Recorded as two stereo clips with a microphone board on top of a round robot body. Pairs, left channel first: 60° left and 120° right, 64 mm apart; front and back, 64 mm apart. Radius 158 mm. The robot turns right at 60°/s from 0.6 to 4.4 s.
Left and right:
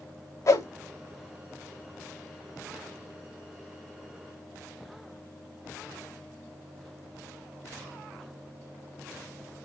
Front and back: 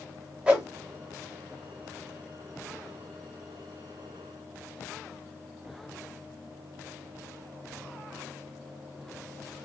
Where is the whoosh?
105° left, 0.7 m.